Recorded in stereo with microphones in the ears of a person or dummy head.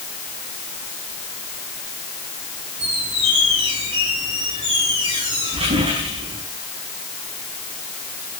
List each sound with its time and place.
2.8 s a squeak: 25° right (ahead or behind), 5 m